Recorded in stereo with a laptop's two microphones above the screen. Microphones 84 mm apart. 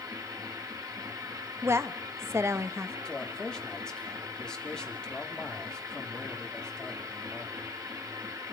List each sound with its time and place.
0.0 s a machine running: 45° right (ahead or behind), 1.7 m
1.6 s a woman speaking: 30° right (ahead or behind), 1.3 m
3.0 s a man speaking: 10° left (ahead or behind), 3 m